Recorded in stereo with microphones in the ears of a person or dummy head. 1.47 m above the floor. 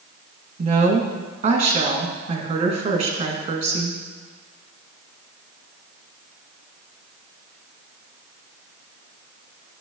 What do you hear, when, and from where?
0.6 s a woman speaking: 25° right (ahead or behind), 1.9 m